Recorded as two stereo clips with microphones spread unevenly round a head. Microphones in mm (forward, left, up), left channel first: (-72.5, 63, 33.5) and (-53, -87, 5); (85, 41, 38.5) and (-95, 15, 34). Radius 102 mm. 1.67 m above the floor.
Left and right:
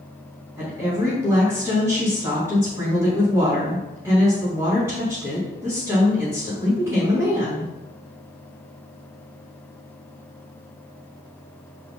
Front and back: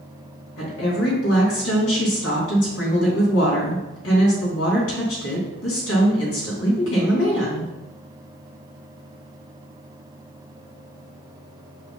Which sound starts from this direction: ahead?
A woman speaking, at 0.6 s.